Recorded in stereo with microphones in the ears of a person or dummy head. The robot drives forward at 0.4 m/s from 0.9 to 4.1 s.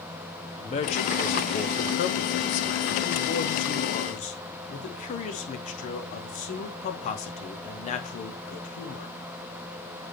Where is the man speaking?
35° left (ahead or behind), 1.0 m; by 9.2 s 40° left (ahead or behind), 0.8 m.